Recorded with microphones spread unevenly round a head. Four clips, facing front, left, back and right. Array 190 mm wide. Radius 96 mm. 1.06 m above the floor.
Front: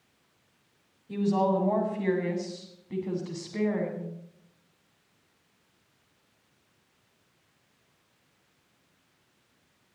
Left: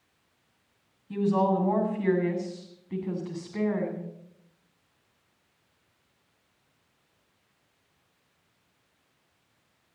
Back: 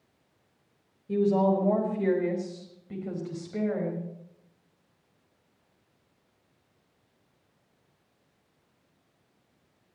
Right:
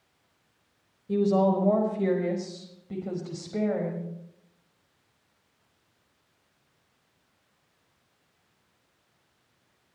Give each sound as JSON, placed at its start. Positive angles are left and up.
{"t": 1.1, "sound": "a woman speaking", "azimuth_deg": -120, "distance_m": 4.5}